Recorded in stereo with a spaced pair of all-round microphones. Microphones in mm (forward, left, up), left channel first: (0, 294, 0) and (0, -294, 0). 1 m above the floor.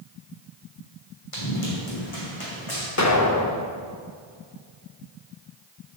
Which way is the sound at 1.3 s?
60° left (ahead or behind).